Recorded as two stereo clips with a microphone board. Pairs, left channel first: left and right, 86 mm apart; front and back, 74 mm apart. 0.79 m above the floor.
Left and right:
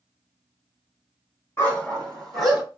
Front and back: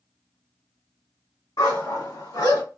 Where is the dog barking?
25° left, 1.8 m; by 2.6 s 5° right, 1.7 m.